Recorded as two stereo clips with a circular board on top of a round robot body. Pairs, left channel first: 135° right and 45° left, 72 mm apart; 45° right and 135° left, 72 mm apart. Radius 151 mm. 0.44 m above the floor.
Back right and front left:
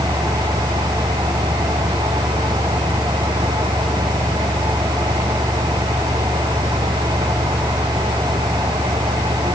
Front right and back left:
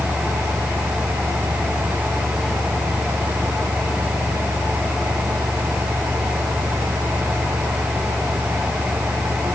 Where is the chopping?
No chopping in this recording.